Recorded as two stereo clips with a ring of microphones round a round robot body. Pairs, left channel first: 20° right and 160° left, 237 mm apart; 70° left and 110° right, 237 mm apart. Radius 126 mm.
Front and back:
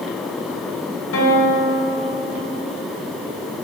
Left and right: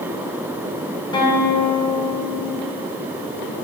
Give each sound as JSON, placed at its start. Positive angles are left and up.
{"t": 1.1, "sound": "a guitar", "azimuth_deg": 0, "distance_m": 2.0}